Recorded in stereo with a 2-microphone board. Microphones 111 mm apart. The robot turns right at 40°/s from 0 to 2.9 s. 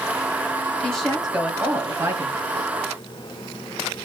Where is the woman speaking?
170° left, 1.4 m; by 2.7 s 115° right, 1.4 m.